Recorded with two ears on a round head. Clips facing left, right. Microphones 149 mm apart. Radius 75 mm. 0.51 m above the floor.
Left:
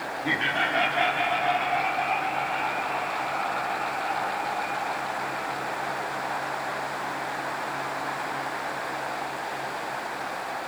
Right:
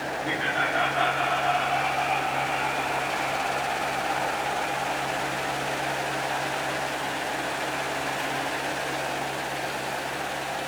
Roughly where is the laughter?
Left.